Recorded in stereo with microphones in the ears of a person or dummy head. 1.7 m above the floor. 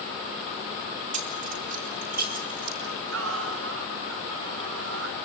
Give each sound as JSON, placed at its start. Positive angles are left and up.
{"t": 1.1, "sound": "keys jangling", "side_deg": -40, "distance_m": 1.6}
{"t": 2.8, "sound": "singing", "side_deg": -70, "distance_m": 4.0}